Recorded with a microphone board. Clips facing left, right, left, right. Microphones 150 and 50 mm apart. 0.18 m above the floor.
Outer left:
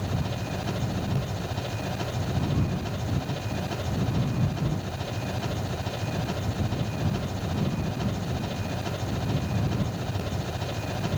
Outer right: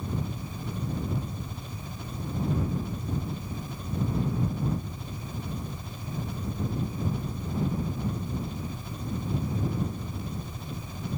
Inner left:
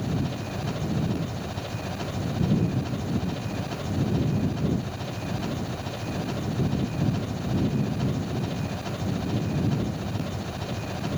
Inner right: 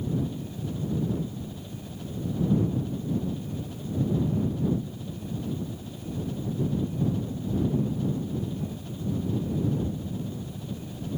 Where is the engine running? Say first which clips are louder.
Outer left 3 dB, inner left 1 dB; 85° left.